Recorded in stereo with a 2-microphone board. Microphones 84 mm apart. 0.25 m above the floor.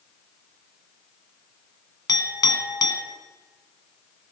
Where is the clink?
60° left (ahead or behind), 1.6 m.